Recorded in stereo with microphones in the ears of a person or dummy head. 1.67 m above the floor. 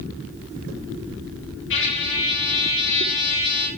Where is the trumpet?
65° left (ahead or behind), 9.5 m.